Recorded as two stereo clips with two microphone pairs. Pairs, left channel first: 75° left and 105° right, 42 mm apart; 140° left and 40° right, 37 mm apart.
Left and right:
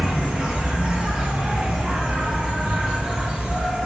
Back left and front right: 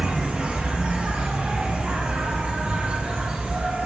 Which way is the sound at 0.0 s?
55° right.